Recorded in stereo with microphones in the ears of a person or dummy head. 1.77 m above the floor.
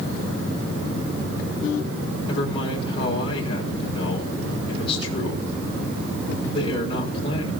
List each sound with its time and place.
2.3 s a man speaking: 35° left (ahead or behind), 6 m